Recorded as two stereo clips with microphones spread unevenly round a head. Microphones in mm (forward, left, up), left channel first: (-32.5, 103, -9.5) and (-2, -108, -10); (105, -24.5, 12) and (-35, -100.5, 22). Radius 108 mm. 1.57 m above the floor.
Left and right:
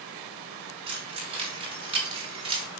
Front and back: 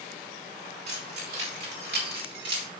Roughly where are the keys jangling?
Behind right.